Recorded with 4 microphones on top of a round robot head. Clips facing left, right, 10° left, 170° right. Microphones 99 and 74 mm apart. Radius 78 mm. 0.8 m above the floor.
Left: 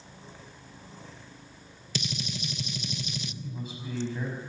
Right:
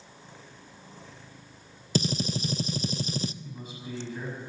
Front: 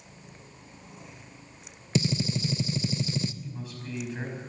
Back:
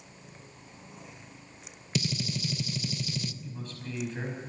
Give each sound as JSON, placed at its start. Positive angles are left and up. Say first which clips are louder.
{"t": 1.9, "sound": "a gunshot", "louder": "right 8 dB, front 5 dB", "azimuth_deg": -45, "distance_m": 0.5}
{"t": 3.4, "sound": "a man speaking", "louder": "left 2 dB, front 1 dB", "azimuth_deg": 90, "distance_m": 5.5}